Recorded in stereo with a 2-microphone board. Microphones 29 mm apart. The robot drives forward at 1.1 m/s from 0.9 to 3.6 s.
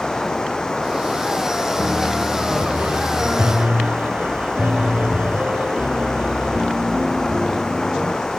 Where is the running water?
20° left (ahead or behind).